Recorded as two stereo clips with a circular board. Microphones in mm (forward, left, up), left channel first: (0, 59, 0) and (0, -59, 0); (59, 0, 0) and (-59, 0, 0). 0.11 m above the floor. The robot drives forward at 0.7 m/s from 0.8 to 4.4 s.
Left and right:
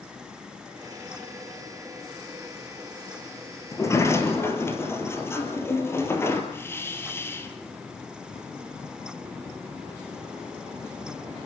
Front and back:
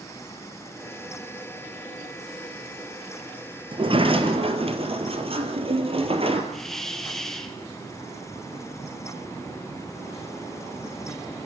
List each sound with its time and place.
3.7 s a sliding door: 150° left, 2 m; by 6.4 s 155° left, 2.5 m
6.5 s a hiss: 80° left, 1.7 m